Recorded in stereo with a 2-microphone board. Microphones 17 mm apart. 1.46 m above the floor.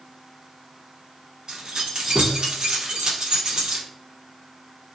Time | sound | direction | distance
1.5 | keys jangling | 40° right (ahead or behind) | 1.0 m